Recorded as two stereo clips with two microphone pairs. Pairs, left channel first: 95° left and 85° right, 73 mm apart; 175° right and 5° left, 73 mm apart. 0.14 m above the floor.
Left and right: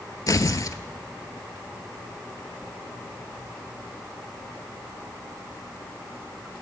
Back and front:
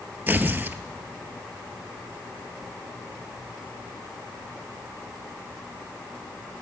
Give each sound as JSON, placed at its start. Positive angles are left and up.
{"t": 0.3, "sound": "tearing paper", "azimuth_deg": 65, "distance_m": 0.5}